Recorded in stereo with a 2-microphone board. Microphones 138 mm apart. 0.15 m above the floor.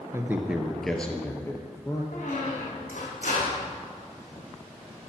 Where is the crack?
No crack in this recording.